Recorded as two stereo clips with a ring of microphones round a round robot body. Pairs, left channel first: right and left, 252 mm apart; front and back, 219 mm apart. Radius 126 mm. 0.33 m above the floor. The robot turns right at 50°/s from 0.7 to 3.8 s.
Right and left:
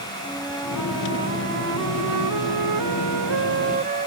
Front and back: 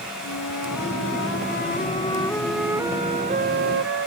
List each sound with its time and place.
0.2 s a flute: straight ahead; by 4.1 s 155° left